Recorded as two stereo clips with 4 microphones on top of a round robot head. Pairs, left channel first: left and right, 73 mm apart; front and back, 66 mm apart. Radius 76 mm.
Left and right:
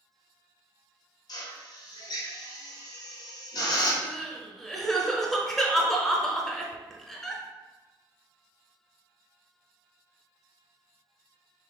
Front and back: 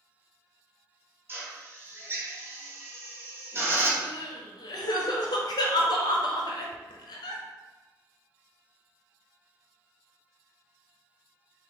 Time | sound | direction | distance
1.3 | a drill | 130° left | 1.6 m
4.0 | crying | straight ahead | 0.9 m